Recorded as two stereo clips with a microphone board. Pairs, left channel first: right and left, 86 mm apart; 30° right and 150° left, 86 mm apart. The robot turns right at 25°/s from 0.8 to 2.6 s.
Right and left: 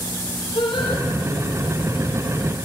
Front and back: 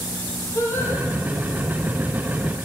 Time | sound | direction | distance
0.6 | singing | 90° right | 7.5 m